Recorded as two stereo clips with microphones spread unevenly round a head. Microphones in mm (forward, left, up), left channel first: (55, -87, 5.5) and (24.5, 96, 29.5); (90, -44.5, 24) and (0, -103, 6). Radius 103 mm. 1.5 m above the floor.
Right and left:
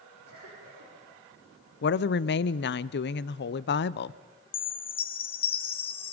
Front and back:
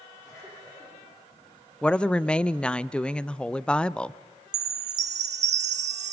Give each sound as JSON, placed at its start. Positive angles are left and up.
{"t": 0.2, "sound": "a cough", "azimuth_deg": 120, "distance_m": 5.5}
{"t": 1.8, "sound": "a woman speaking", "azimuth_deg": -50, "distance_m": 0.6}
{"t": 4.5, "sound": "a chime", "azimuth_deg": -150, "distance_m": 0.8}